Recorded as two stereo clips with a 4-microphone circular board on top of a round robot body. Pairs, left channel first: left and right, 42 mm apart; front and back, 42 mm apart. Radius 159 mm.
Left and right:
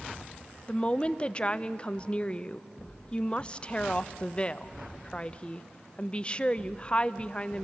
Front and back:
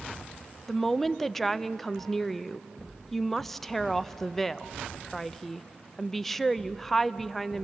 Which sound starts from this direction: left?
A woman speaking, at 0.7 s.